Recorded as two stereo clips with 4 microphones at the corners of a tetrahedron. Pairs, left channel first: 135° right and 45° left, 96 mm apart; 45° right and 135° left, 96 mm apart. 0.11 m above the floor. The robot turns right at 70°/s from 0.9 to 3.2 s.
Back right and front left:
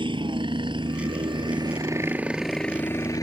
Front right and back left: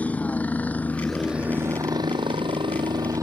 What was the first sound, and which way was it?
A helicopter, 30° left.